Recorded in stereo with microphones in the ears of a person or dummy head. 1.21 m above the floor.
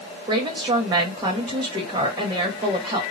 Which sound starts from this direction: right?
A woman speaking, at 0.3 s.